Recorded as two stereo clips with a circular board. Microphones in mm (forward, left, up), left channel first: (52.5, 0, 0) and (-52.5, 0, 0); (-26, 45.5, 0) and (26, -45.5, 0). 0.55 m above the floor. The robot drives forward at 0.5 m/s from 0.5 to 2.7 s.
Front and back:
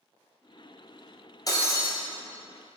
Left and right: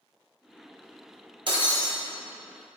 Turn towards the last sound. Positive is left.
turn(degrees=-105)